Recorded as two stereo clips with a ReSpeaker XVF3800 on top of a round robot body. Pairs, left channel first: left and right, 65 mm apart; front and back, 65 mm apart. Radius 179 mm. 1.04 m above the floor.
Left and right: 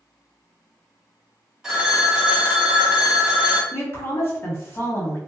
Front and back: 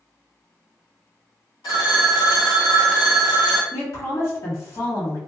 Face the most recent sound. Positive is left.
turn(degrees=40)